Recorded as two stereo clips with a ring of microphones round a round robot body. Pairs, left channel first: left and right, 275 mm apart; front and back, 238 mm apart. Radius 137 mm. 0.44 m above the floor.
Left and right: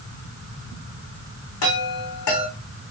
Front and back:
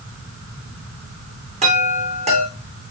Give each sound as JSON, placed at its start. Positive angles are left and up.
{"t": 1.6, "sound": "a chime", "azimuth_deg": 115, "distance_m": 5.0}